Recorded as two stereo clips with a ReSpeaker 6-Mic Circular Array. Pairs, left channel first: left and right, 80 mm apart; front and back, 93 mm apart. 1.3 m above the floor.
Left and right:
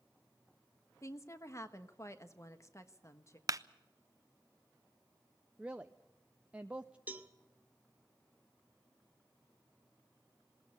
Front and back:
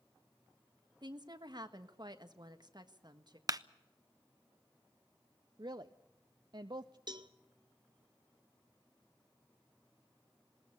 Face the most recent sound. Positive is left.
turn(degrees=-155)